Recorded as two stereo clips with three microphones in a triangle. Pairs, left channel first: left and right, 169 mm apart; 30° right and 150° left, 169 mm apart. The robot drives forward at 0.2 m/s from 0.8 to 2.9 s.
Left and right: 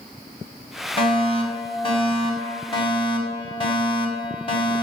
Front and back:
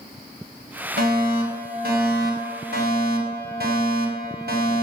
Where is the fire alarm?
145° left, 5 m; by 4.8 s 150° left, 5.5 m.